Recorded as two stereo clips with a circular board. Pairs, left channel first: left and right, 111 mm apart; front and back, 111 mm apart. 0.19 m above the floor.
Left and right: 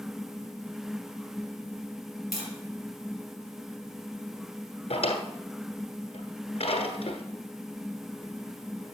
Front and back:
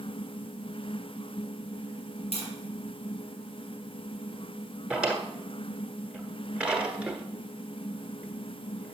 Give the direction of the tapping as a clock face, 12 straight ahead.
12 o'clock.